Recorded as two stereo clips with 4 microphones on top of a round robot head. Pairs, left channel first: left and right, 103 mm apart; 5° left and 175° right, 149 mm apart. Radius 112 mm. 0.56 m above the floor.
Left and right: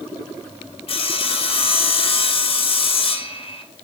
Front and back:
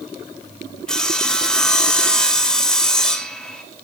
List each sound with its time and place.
0.9 s sawing: 90° left, 1.2 m